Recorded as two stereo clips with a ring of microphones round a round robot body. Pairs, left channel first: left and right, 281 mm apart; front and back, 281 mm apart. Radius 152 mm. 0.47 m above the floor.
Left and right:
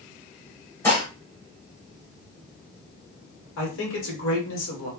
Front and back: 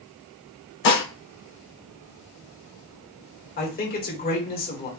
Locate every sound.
0.8 s dishes clattering: 10° left, 1.2 m
3.6 s a man speaking: 50° left, 1.6 m